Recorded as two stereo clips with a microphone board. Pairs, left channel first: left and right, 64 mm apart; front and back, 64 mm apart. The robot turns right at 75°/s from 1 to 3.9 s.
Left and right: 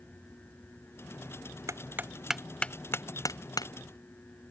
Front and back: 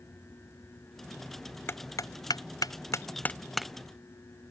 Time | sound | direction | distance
1.7 | hammering | 55° right | ?